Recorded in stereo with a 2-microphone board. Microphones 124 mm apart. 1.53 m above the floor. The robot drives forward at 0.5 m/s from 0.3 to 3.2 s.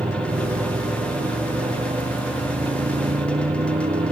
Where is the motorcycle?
65° right (ahead or behind).